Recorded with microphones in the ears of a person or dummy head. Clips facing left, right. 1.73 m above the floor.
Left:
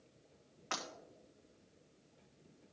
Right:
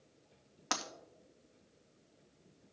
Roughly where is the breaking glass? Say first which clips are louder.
Right 4 dB; right.